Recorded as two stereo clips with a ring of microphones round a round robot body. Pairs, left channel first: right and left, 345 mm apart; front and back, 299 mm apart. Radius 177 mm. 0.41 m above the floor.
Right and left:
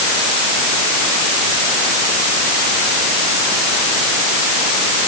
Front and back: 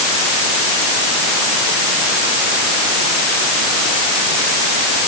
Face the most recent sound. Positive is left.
No sound to turn to.